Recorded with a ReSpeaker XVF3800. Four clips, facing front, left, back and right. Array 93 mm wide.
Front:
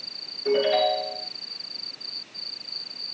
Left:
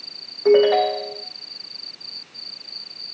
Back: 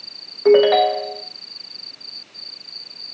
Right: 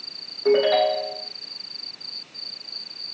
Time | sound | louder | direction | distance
0.5 | a ringtone | left 3 dB, back 9 dB | 165° left | 1.7 m